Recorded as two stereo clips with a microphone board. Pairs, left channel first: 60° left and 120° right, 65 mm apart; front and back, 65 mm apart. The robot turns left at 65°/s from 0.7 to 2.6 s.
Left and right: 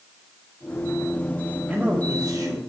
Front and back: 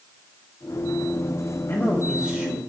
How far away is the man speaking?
About 2 m.